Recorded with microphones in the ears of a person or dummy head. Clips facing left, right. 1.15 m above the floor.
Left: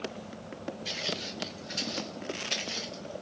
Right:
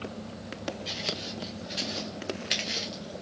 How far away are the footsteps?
About 1.8 m.